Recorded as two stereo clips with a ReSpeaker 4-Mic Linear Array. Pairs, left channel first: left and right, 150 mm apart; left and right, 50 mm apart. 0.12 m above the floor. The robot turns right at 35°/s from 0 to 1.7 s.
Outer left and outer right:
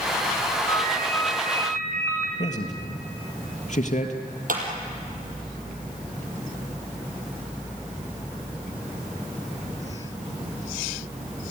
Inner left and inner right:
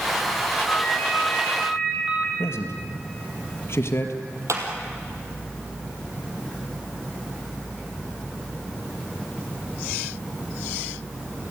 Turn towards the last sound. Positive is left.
turn(degrees=-65)  # may be behind; listen again after turning